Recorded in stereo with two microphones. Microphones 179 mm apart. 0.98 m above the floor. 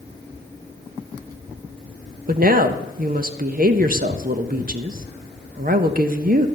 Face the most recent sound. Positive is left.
turn(degrees=-50)  # may be behind; listen again after turning